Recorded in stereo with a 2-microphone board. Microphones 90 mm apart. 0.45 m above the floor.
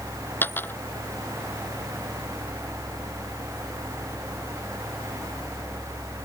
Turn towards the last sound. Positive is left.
turn(degrees=20)  # may be behind; listen again after turning